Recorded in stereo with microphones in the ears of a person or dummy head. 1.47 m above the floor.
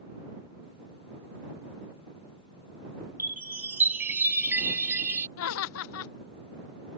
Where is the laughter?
80° left.